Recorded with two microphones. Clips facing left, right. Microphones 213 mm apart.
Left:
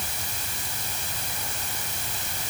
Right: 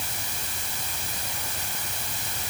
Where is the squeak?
I don't hear a squeak.